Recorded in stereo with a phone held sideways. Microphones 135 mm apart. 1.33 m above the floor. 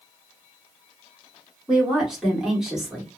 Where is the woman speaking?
5° right (ahead or behind), 1.2 m.